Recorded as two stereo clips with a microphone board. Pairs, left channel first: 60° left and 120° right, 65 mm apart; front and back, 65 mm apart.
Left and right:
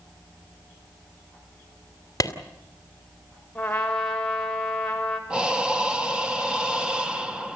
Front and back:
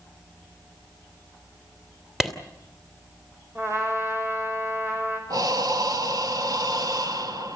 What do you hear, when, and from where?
2.2 s a clap: 95° left, 2.5 m
3.5 s a trumpet: 135° left, 5.5 m
5.3 s breathing: 160° left, 1.6 m